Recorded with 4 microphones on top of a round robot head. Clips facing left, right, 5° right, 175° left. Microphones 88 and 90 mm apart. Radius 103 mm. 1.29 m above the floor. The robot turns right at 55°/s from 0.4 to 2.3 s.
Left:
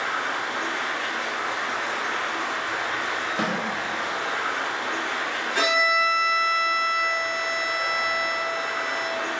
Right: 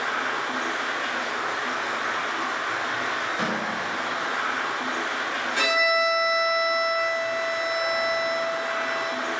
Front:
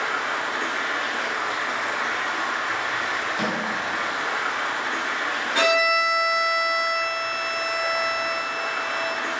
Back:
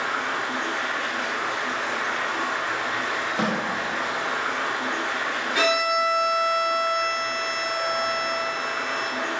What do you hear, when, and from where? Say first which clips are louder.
0.0 s running water: even, front 1 dB; 5° right, 1.5 m; by 9.4 s 100° left, 1.5 m
3.4 s a snare drum: left 2 dB, back 3 dB; 120° left, 1.1 m
5.5 s a violin: left 1 dB, front 2 dB; 50° left, 1.4 m